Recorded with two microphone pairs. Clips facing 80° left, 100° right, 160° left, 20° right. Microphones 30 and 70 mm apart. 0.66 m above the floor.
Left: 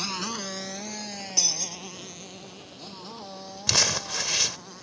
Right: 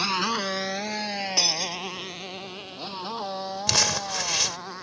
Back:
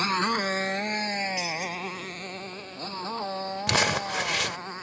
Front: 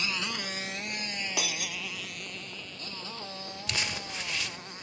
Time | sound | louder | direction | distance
0.0 | a motorcycle | right 7 dB, back 9 dB | 160° right | ?
1.4 | breaking glass | right 3 dB, back 4 dB | 45° right | ?
3.7 | crumpling | even, back 10 dB | 175° left | ?